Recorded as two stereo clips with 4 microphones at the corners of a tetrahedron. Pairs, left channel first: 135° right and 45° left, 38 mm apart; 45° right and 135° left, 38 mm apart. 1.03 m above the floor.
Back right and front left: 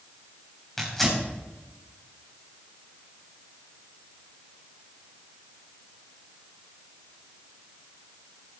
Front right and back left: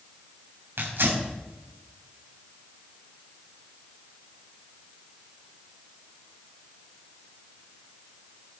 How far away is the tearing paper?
About 4 m.